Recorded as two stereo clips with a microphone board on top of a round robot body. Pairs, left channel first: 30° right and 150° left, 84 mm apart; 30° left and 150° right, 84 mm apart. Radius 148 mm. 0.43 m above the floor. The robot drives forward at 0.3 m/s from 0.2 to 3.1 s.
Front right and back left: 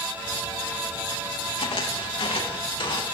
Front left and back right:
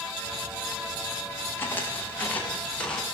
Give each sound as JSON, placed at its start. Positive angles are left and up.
{"t": 1.6, "sound": "footsteps", "azimuth_deg": -35, "distance_m": 8.5}